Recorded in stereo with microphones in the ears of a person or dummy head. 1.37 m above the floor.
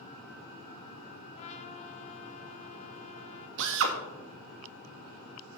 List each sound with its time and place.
1.4 s a trumpet: 40° left (ahead or behind), 1.1 m
3.6 s a drill: 75° right (ahead or behind), 1.6 m